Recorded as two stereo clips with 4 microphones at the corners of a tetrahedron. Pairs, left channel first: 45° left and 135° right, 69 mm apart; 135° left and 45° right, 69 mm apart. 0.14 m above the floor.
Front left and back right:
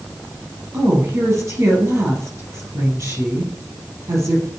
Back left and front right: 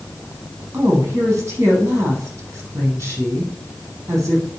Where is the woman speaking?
95° right, 3.5 m.